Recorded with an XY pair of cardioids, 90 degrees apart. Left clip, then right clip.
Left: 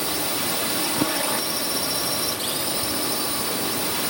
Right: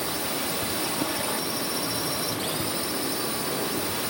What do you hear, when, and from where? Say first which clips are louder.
0.0 s a drone: left 3 dB; 45° left